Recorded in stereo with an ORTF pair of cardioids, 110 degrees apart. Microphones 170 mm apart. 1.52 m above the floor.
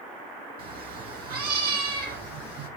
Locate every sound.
0.6 s a cat meowing: 65° right, 5.5 m; by 2.7 s 75° right, 6.5 m